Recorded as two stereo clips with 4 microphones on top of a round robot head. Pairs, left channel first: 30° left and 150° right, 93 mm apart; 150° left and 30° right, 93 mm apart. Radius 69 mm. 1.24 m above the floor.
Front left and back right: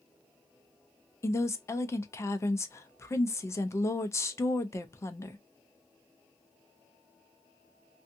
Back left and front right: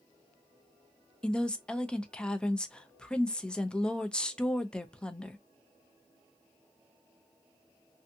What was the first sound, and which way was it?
A woman speaking, 70° left.